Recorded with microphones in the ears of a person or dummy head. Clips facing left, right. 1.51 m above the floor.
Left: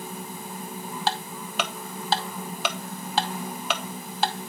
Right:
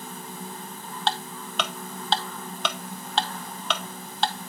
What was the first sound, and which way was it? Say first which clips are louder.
Ticking: right 1 dB; 10° left (ahead or behind).